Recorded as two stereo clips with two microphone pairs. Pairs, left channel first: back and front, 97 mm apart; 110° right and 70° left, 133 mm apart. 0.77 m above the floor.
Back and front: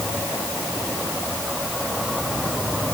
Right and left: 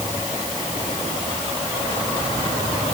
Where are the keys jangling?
No keys jangling in this recording.